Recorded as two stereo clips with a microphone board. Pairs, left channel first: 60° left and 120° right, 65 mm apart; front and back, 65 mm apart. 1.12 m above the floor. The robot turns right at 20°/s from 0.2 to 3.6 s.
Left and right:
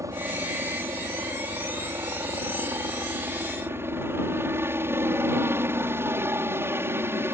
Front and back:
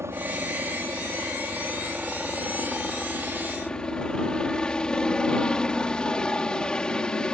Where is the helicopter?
140° right; by 7.3 s 75° right.